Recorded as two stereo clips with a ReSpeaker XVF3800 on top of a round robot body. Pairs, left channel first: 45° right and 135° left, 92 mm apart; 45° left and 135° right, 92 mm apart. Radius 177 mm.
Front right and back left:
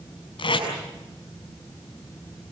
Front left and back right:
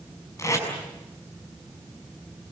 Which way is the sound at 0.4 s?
15° right.